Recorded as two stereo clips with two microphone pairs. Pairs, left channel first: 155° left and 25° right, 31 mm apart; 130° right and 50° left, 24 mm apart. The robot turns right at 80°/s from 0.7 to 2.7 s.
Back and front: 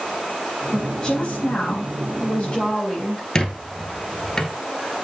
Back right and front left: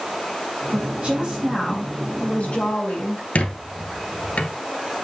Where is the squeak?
140° right, 1.1 m.